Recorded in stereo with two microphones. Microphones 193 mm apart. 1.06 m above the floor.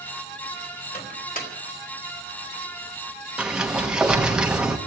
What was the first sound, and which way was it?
A microwave, 45° left (ahead or behind).